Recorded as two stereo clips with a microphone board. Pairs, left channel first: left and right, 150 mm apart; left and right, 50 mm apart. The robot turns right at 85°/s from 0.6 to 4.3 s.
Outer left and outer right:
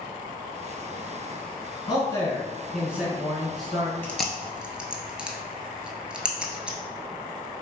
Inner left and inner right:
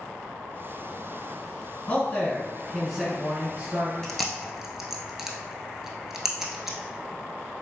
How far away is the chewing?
About 0.7 m.